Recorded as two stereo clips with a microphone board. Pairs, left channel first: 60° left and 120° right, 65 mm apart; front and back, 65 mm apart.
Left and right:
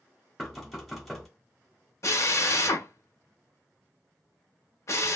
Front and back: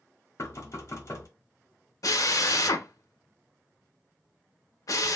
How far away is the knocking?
About 1.0 m.